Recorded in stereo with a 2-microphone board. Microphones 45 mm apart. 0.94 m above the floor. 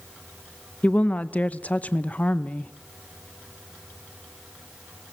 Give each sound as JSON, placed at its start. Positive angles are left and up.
{"t": 0.8, "sound": "a woman speaking", "side_deg": 35, "distance_m": 0.7}